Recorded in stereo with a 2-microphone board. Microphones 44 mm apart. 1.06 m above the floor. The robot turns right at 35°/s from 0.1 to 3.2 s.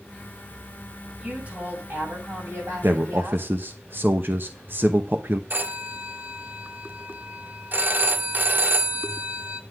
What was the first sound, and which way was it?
A woman speaking, 150° right.